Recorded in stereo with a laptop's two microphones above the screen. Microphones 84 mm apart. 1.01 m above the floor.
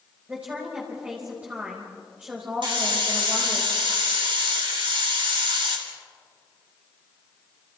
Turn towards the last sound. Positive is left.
turn(degrees=-80)